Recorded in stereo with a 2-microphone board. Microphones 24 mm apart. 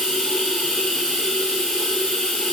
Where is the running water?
65° left (ahead or behind), 1.0 m.